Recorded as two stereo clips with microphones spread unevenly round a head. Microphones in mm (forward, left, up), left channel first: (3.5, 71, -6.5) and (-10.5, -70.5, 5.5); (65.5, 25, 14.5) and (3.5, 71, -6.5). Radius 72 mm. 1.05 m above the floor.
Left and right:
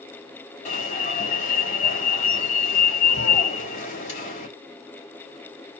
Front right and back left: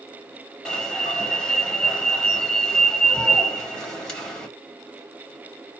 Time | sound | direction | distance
0.7 | an alarm | 45° left | 2.5 m